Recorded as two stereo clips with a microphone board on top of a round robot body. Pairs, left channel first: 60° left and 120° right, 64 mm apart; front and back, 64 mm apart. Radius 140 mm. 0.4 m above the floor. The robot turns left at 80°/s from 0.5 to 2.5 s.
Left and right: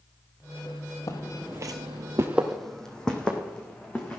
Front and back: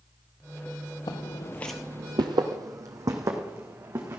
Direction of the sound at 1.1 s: 15° left.